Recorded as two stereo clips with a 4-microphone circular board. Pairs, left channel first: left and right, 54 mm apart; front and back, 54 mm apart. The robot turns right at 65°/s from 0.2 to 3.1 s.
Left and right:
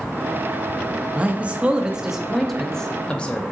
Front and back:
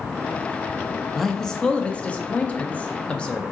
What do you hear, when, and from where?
1.1 s a man speaking: 85° right, 0.5 m; by 3.4 s 45° left, 0.5 m